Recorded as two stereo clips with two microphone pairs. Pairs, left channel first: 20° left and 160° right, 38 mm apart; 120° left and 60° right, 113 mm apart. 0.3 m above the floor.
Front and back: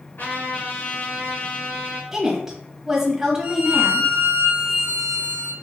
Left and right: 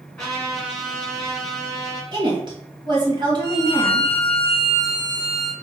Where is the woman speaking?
85° right, 1.7 m.